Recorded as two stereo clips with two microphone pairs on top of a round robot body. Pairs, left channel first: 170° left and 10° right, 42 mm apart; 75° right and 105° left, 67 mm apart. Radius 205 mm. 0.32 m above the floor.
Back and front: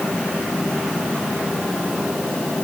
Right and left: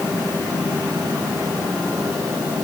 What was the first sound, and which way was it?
Only background noise.